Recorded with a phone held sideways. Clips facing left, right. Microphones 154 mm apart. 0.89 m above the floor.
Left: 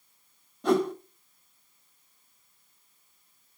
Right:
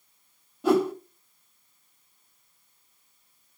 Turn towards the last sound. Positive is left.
turn(degrees=-5)  # may be behind; listen again after turning